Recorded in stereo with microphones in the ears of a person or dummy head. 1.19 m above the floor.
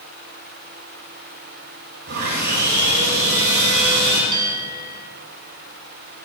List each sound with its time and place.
2.1 s sawing: 55° right (ahead or behind), 5 m
4.3 s a bell: 25° right (ahead or behind), 3 m